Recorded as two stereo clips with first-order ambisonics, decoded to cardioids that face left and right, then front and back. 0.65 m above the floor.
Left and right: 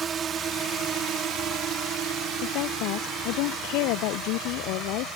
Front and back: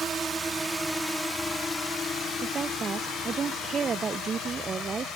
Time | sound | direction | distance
0.0 | a drone | 130° right | ?
2.4 | a woman speaking | 110° left | ?